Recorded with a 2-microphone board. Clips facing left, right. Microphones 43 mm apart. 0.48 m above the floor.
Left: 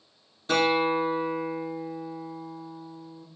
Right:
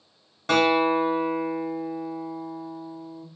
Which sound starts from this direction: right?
A guitar, at 0.5 s.